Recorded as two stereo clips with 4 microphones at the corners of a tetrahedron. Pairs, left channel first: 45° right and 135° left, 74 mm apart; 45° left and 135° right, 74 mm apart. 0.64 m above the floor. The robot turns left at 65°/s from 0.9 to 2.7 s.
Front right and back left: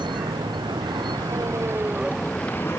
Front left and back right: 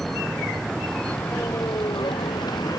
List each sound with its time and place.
0.0 s a vehicle: 130° left; by 2.8 s 15° left